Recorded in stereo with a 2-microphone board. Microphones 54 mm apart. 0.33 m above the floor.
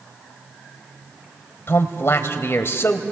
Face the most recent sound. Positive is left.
turn(degrees=45)  # may be behind; listen again after turning